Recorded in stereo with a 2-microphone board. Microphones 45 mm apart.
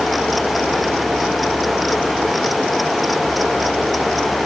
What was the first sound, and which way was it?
Only background noise.